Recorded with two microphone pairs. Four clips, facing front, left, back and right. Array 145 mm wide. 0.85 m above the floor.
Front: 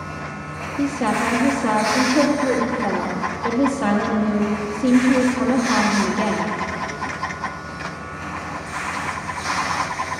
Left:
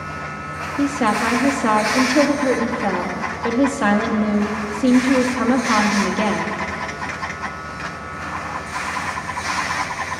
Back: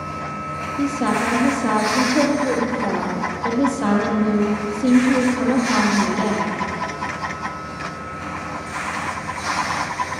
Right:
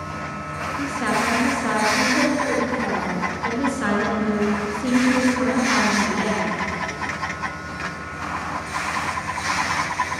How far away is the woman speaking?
About 1.5 m.